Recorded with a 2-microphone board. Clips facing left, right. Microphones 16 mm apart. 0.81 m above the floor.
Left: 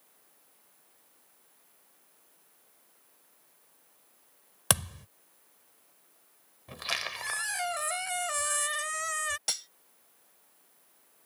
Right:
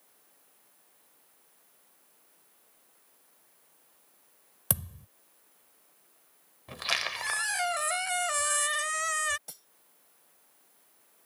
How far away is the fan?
I don't hear a fan.